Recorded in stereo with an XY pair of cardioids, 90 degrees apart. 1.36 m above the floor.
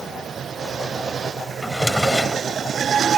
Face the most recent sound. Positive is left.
turn(degrees=10)